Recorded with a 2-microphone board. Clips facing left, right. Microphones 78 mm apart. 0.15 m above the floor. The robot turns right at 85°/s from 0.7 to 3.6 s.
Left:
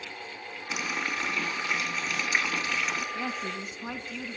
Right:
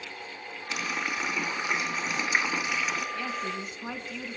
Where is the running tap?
5° left (ahead or behind), 0.7 m; by 3.0 s centre (ahead or behind), 0.7 m.